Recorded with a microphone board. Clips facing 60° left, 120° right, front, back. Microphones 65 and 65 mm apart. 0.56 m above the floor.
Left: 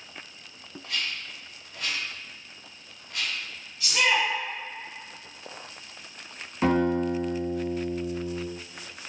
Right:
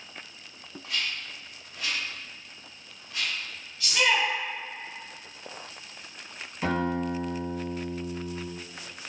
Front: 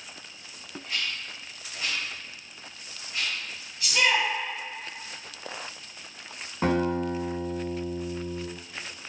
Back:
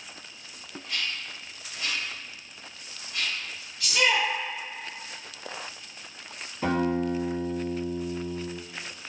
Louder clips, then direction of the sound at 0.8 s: Even, even; 60° left.